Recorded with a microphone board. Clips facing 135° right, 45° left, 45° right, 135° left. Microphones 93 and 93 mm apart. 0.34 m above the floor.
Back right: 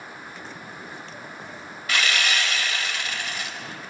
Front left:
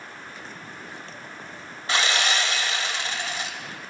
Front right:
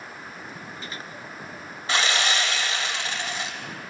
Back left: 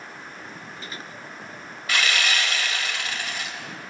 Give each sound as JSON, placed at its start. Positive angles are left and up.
{"t": 1.9, "sound": "sawing", "azimuth_deg": 0, "distance_m": 1.1}